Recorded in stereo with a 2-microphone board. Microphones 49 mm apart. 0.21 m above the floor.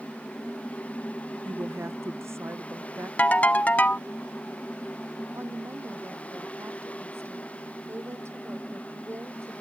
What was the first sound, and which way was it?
A woman speaking, 60° right (ahead or behind).